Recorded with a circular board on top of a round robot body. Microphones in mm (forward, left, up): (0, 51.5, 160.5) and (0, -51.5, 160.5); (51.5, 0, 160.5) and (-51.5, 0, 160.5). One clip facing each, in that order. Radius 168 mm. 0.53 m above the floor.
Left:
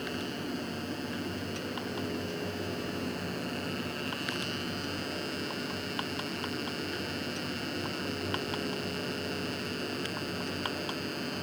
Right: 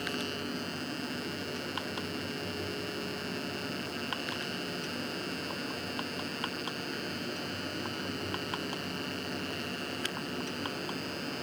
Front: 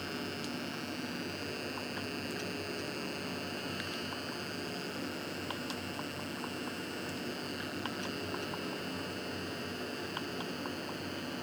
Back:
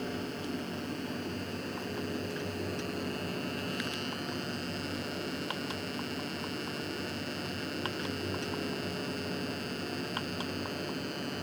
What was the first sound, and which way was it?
Only background noise.